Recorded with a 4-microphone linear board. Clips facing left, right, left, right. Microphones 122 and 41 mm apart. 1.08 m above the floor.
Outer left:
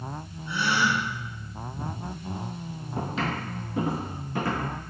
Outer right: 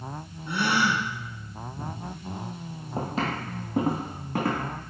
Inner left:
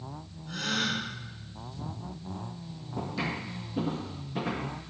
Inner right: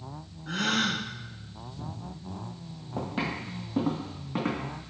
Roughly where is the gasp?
Right.